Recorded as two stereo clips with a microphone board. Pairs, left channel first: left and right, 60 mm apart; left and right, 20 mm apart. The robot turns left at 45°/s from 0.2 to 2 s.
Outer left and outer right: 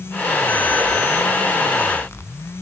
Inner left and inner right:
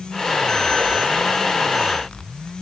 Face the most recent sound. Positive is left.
No sound to turn to.